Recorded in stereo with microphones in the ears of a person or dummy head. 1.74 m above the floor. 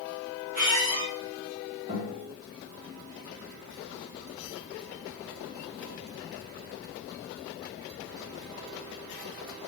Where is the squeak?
40° right (ahead or behind), 1.2 m.